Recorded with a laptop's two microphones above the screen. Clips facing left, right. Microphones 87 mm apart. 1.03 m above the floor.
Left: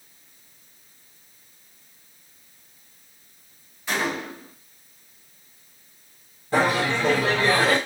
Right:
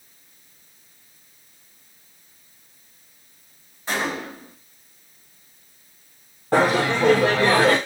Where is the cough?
No cough in this recording.